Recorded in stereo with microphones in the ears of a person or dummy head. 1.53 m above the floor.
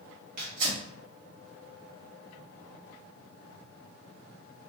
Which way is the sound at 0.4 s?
45° right (ahead or behind).